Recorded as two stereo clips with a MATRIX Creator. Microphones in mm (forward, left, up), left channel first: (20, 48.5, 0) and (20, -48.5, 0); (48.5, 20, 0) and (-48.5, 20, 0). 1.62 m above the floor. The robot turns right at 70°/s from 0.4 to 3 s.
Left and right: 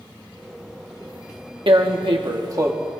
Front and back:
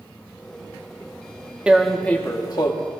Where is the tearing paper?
100° right, 1.1 m; by 2.7 s 30° right, 1.1 m.